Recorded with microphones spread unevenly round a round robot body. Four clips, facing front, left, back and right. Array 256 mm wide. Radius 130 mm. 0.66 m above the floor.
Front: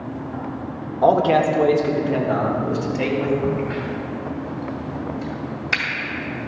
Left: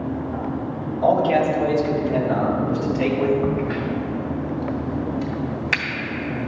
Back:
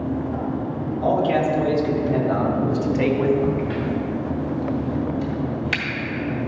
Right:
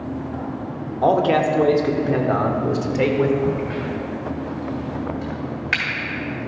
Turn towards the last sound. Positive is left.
turn(degrees=140)